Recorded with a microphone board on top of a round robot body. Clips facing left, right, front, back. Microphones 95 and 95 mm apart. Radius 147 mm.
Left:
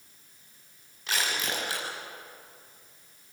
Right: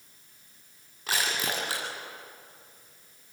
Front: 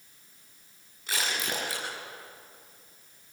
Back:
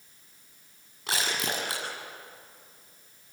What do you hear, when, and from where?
1.1 s crushing: 145° right, 8 m